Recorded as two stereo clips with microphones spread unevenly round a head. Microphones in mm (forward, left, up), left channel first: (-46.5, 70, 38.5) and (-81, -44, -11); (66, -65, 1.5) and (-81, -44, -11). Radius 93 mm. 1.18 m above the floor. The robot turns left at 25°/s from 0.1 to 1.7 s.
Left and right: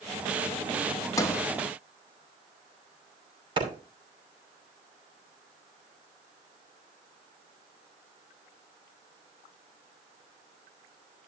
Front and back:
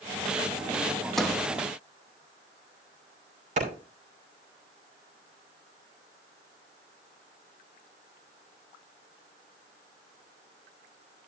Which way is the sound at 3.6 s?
155° right.